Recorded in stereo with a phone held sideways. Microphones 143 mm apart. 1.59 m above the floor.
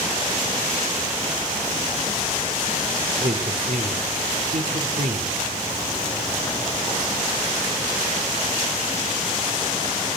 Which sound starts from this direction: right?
A man speaking, at 3.2 s.